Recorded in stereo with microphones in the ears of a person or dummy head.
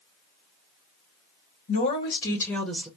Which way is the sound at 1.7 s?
45° left (ahead or behind).